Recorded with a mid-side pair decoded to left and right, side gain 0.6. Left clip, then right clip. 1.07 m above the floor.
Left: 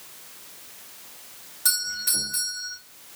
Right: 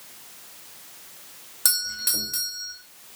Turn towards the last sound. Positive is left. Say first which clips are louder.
# even
turn(degrees=-45)